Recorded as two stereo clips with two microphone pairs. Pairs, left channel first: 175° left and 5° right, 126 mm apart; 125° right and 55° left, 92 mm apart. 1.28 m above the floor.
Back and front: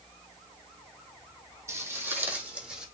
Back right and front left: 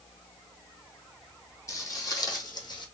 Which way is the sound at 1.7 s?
70° right.